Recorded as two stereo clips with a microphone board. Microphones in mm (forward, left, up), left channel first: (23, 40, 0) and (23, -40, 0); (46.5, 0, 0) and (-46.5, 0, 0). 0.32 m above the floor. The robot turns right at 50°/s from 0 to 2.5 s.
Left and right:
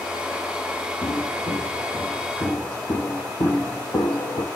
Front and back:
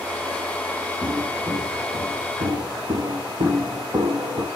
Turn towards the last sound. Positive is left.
turn(degrees=120)